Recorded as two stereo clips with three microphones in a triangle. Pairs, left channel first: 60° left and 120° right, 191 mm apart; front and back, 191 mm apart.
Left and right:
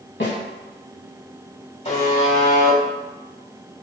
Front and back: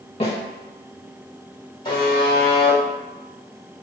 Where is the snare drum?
60° left, 2.0 m.